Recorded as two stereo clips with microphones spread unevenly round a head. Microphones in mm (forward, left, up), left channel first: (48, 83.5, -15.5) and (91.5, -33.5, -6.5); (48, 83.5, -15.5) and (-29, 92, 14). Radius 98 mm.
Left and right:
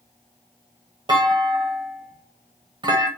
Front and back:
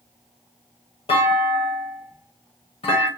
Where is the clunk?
30° right, 1.2 m.